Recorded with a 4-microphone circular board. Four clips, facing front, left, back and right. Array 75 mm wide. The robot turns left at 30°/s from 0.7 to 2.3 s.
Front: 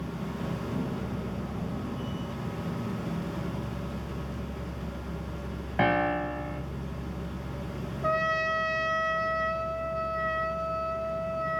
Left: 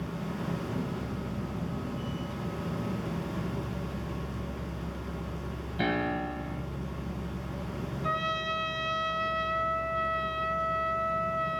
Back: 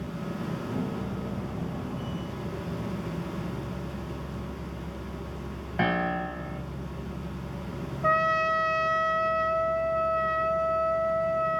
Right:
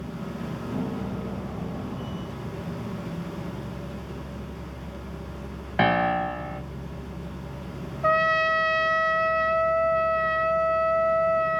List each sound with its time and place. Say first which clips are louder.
5.8 s a piano: right 8 dB, front 2 dB; 75° right, 2.5 m
8.0 s a trumpet: right 10 dB, back 3 dB; 90° right, 3 m